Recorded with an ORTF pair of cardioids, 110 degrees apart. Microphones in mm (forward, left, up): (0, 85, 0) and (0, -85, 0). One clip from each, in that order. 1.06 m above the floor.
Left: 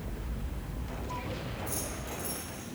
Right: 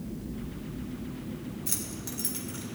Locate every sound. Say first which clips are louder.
1.7 s keys jangling: even; 65° right, 3 m